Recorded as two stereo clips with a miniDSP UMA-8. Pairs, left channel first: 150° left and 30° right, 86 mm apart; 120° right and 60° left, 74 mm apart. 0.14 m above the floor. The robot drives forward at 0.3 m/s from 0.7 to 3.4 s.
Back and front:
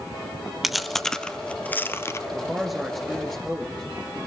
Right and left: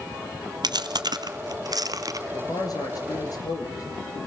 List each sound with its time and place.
0.6 s chewing: 60° left, 0.8 m; by 2.2 s 95° left, 0.7 m
2.3 s a man speaking: 115° right, 2.5 m; by 3.8 s 125° right, 2.5 m